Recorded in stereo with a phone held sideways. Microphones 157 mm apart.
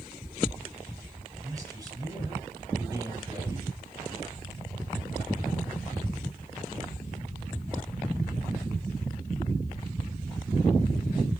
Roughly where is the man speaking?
Right.